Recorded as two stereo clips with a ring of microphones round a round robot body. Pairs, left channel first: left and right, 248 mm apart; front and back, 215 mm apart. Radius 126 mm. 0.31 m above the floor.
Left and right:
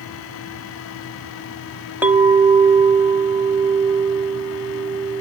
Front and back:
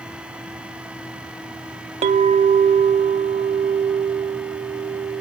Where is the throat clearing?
No throat clearing in this recording.